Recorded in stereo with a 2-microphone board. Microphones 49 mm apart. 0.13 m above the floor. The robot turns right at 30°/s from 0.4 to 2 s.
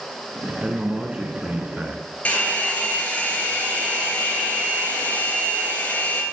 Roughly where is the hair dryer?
Left.